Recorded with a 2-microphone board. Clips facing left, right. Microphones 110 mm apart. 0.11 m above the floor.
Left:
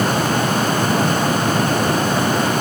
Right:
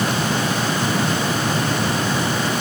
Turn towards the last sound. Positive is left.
No sound to turn to.